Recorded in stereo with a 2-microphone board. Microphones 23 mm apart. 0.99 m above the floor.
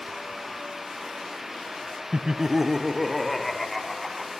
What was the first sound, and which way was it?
Laughter, 45° right (ahead or behind).